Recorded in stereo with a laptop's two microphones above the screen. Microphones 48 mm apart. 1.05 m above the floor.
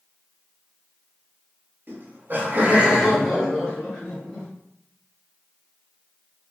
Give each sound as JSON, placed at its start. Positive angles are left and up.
{"t": 1.9, "sound": "laughter", "side_deg": -50, "distance_m": 1.1}